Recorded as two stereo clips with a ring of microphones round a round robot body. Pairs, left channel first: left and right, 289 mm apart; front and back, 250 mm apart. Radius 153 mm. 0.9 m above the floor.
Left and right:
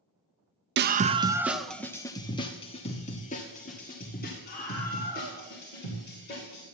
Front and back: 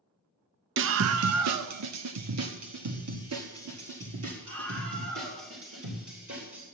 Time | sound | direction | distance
0.8 | a scream | 140° right | 0.6 m